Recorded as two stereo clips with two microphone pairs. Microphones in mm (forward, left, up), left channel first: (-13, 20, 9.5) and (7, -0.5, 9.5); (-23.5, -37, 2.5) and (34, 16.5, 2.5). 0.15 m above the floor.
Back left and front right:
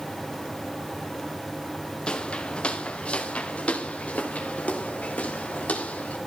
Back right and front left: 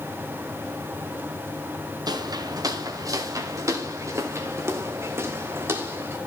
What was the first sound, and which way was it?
Footsteps, 80° left.